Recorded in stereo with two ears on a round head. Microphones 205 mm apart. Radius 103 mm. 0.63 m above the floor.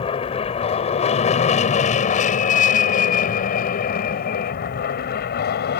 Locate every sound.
0.0 s an aircraft: 25° left (ahead or behind); by 5.8 s 45° left (ahead or behind)